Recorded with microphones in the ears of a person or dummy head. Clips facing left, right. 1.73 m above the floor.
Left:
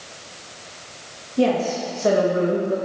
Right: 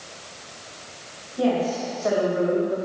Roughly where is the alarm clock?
No alarm clock in this recording.